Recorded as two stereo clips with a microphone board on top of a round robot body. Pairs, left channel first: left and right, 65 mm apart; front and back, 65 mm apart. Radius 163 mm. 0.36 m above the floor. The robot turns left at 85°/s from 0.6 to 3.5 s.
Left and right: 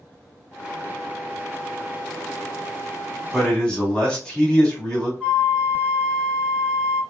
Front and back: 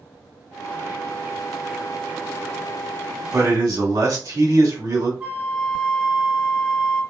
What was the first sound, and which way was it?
A man speaking, straight behind.